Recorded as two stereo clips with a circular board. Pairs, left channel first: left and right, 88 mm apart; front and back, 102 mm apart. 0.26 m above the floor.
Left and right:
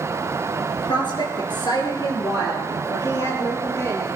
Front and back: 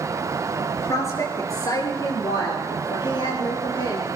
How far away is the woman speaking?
About 3 m.